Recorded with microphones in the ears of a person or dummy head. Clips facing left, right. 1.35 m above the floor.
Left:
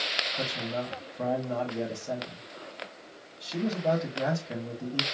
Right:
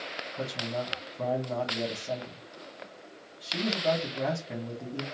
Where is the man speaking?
Centre (ahead or behind), 1.6 m.